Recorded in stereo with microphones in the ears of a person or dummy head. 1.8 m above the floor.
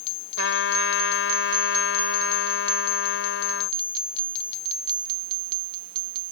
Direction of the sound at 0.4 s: 85° left.